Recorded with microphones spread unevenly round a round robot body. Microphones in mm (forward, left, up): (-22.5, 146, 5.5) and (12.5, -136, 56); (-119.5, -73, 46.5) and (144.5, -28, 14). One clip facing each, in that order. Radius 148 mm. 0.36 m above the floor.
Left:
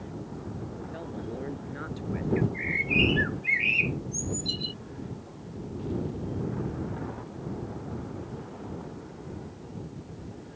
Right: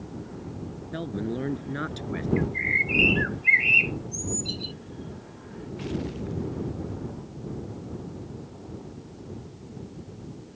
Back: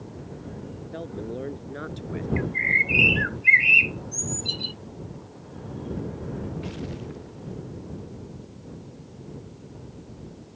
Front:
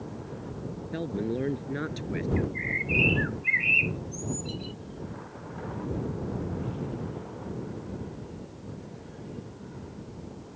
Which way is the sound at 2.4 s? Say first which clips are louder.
Even, even; 175° left.